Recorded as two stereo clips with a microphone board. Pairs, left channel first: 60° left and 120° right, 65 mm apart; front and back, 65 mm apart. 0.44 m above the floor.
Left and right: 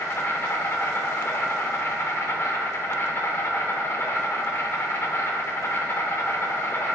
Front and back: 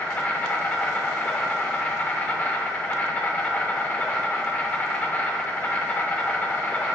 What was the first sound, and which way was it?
An insect, 50° left.